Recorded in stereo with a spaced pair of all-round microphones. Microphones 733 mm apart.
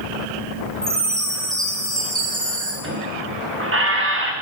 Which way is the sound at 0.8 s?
Centre (ahead or behind).